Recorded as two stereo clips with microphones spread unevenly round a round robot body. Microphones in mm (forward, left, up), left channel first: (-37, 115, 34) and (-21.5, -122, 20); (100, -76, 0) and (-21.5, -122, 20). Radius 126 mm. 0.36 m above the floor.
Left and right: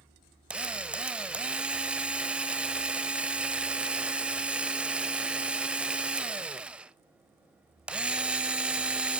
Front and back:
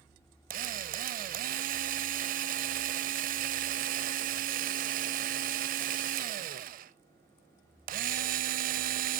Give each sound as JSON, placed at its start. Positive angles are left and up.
{"t": 0.5, "sound": "a drill", "azimuth_deg": -170, "distance_m": 0.6}